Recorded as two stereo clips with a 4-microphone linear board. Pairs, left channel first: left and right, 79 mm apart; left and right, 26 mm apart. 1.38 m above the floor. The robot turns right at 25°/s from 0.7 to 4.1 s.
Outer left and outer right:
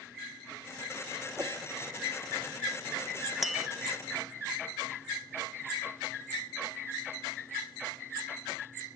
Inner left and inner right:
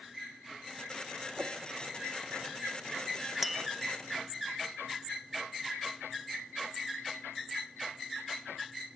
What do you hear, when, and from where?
1.4 s a whoosh: 25° right (ahead or behind), 1.3 m; by 1.6 s 30° right (ahead or behind), 1.3 m
3.4 s tapping: centre (ahead or behind), 1.1 m; by 3.7 s 10° right (ahead or behind), 1.1 m